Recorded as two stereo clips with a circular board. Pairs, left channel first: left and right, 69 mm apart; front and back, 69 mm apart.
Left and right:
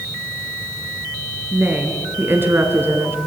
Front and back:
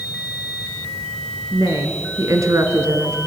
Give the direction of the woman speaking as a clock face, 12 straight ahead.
5 o'clock.